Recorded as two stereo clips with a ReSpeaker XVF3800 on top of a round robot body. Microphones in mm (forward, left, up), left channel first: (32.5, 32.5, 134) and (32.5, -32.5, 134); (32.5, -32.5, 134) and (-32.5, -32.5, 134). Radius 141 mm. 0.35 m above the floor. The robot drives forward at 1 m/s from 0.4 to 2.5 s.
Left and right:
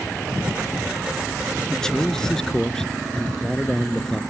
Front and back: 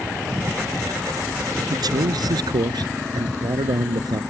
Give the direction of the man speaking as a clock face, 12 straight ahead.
6 o'clock.